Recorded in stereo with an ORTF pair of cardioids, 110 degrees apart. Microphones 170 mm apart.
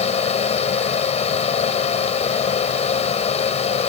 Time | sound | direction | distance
0.0 | a fan | 40° left | ?